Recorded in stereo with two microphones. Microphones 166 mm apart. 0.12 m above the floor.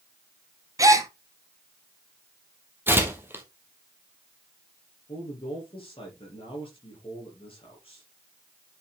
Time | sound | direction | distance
0.8 | a gasp | 20° right (ahead or behind) | 0.9 m
2.9 | tearing paper | 15° right (ahead or behind) | 1.6 m
5.1 | a man speaking | 35° left (ahead or behind) | 3 m